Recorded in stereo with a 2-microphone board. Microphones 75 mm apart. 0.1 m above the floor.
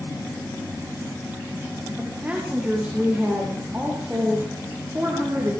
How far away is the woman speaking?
About 7.5 m.